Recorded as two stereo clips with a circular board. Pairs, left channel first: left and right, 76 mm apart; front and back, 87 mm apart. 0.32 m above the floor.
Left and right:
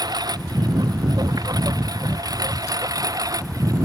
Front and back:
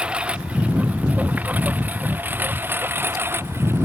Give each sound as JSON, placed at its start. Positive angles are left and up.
{"t": 0.0, "sound": "a lawn mower", "azimuth_deg": -105}